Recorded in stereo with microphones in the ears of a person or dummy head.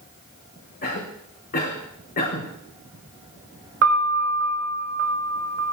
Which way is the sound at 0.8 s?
40° left (ahead or behind).